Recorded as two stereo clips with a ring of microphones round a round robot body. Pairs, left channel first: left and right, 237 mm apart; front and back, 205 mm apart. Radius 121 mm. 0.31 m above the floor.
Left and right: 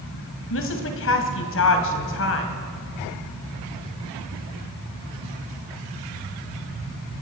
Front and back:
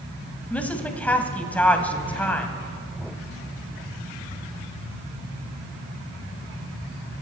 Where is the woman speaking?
80° left, 2 m.